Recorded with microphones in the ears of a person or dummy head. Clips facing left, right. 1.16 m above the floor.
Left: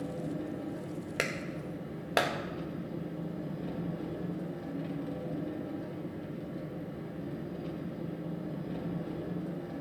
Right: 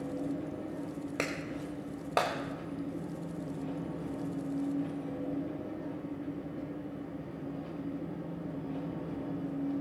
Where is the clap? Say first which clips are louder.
Left 1 dB; 10° left (ahead or behind), 0.8 m.